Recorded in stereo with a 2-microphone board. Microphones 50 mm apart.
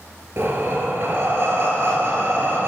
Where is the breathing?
50° right (ahead or behind), 1.7 m.